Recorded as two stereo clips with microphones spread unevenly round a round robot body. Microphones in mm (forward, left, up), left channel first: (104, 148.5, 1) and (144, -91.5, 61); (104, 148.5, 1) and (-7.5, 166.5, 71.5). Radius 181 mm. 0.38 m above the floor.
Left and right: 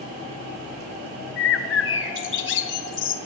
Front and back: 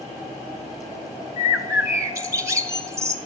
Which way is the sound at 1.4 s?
95° left.